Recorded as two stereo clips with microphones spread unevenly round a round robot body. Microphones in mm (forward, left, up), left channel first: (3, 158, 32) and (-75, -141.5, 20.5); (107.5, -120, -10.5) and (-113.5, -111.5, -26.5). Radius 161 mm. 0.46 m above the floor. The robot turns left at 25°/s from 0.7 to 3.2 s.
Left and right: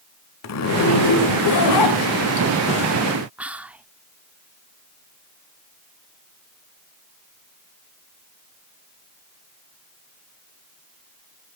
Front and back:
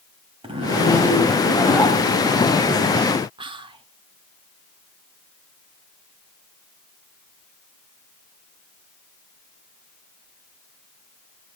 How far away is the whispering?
About 0.7 m.